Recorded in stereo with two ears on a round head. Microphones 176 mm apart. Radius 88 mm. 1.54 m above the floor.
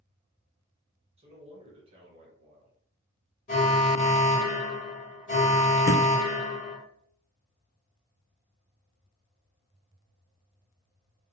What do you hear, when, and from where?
1.2 s a man speaking: 30° right (ahead or behind), 1.3 m
3.5 s an alarm: 40° left (ahead or behind), 1.3 m
5.9 s a thud: 15° right (ahead or behind), 1.5 m